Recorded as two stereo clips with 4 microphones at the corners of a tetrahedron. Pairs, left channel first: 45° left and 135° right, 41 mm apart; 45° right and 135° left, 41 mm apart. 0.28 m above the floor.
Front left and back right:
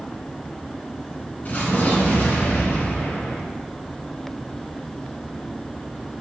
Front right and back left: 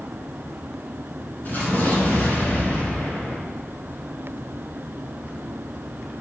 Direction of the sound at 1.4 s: Straight ahead.